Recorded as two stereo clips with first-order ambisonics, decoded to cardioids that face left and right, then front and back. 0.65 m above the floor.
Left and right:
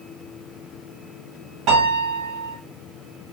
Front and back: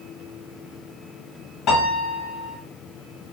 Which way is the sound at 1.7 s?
55° right.